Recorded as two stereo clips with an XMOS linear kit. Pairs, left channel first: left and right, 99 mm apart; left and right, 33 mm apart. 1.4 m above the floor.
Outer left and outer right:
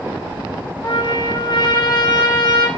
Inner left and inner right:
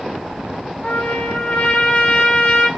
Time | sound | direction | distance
0.8 | a trumpet | 45° left (ahead or behind) | 1.4 m